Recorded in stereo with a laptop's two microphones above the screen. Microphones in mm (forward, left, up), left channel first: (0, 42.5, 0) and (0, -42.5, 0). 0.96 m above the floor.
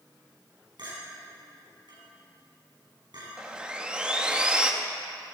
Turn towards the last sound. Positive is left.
turn(degrees=-10)  # may be behind; listen again after turning